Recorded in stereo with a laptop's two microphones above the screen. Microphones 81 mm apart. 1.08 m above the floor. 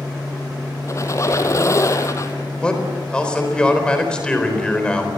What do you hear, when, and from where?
0.9 s a squeak: 40° left (ahead or behind), 1.6 m
2.6 s a man speaking: 10° left (ahead or behind), 4 m